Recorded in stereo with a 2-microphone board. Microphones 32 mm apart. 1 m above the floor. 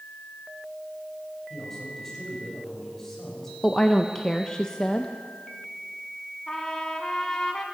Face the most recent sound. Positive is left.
turn(degrees=20)  # may be behind; listen again after turning